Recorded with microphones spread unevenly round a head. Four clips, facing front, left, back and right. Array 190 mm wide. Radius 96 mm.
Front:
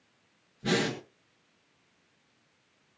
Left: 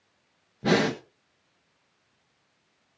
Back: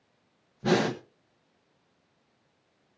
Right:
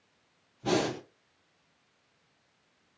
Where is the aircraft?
I don't hear an aircraft.